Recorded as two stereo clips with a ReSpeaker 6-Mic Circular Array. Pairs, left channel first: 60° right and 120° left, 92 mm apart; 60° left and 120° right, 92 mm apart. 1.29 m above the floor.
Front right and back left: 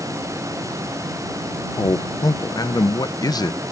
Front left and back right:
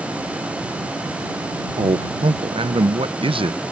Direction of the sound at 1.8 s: 105° right.